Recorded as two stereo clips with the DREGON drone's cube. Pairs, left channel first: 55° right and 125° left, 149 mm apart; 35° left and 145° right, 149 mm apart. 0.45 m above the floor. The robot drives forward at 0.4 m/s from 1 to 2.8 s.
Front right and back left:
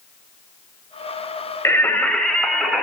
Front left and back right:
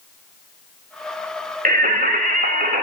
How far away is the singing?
About 0.8 m.